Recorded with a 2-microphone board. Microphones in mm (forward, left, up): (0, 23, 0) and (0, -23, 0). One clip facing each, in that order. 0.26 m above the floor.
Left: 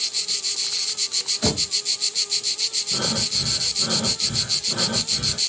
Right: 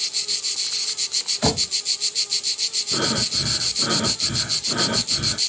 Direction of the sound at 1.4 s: 30° right (ahead or behind).